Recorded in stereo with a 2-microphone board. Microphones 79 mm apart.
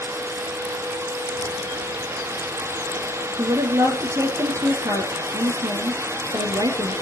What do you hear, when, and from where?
3.4 s a woman speaking: 40° right (ahead or behind), 3.5 m